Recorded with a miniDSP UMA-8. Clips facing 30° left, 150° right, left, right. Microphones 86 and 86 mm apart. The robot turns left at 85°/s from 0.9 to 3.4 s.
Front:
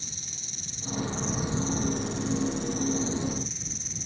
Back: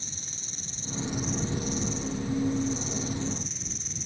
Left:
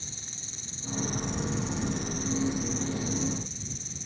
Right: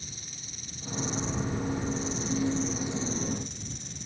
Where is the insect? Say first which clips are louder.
Back 1 dB, even; 155° left; by 4.1 s 60° right.